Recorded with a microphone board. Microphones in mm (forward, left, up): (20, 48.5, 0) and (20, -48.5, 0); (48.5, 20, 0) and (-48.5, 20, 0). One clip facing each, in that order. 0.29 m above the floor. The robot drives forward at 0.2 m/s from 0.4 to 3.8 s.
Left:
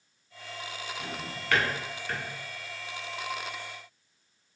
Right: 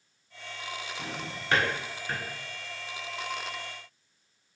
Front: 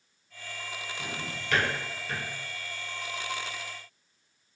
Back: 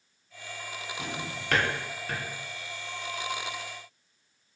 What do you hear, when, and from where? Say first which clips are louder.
1.0 s a drawer: even, back 3 dB; 150° right, 0.6 m; by 2.2 s 160° right, 0.8 m